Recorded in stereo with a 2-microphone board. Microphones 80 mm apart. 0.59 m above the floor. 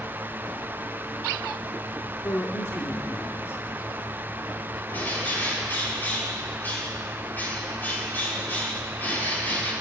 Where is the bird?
25° left (ahead or behind), 6 m.